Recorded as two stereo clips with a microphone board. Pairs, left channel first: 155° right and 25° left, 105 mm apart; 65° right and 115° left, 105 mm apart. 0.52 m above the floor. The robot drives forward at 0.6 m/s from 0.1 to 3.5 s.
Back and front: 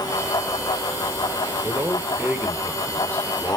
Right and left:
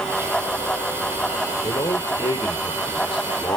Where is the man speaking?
35° right, 1.4 m; by 3.6 s 100° right, 1.0 m.